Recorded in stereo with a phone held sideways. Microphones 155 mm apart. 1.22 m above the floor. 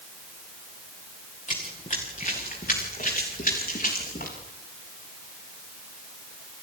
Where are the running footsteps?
50° left (ahead or behind), 5 m; by 4.3 s 70° left (ahead or behind), 9 m.